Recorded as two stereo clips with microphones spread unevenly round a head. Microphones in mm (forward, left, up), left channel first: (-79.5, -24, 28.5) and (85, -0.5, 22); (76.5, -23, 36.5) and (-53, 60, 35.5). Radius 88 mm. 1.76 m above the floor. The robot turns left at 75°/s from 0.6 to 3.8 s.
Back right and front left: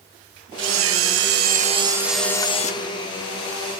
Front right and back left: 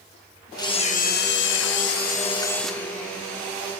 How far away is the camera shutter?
About 0.8 m.